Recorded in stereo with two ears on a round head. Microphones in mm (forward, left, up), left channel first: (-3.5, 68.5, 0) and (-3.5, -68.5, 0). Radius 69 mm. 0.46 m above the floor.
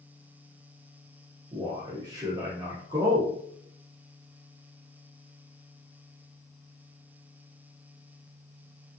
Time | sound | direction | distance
1.5 | a man speaking | 20° right (ahead or behind) | 0.8 m